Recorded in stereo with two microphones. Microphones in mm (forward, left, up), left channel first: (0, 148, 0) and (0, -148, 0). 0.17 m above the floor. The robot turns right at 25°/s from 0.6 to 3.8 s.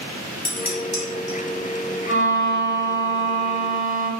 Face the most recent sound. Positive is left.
turn(degrees=110)